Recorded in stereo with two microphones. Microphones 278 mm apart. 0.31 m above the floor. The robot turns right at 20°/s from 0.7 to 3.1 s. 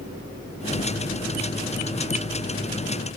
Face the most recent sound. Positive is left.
No sound to turn to.